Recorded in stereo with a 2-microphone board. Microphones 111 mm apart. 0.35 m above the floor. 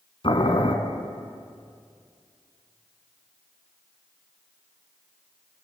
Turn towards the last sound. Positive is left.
turn(degrees=50)  # may be behind; listen again after turning